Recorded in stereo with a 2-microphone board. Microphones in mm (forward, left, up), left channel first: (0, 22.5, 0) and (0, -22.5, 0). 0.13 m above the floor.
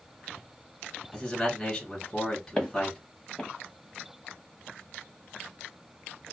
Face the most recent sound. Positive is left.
turn(degrees=15)  # may be behind; listen again after turning